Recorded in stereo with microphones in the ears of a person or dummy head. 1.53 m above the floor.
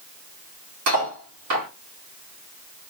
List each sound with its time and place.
0.9 s cutlery clinking: 60° right (ahead or behind), 1.5 m